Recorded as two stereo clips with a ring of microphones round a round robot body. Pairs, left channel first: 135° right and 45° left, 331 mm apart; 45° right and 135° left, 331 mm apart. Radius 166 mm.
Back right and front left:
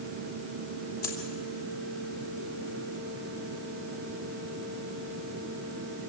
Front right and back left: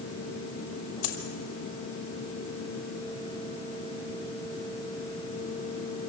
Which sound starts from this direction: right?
A dropped coin, at 1.0 s.